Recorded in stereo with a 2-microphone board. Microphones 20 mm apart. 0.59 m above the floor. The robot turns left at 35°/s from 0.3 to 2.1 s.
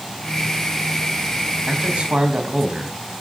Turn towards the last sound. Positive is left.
turn(degrees=-65)  # may be behind; listen again after turning